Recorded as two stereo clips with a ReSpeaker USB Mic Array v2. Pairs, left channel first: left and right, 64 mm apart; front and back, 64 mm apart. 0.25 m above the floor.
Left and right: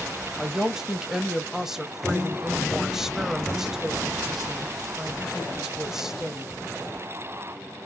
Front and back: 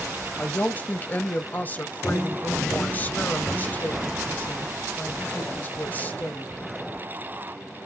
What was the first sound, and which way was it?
A woman speaking, 15° right.